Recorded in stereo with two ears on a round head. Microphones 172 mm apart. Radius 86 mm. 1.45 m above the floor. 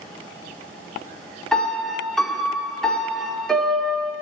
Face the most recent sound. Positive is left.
turn(degrees=0)  # may be behind; listen again after turning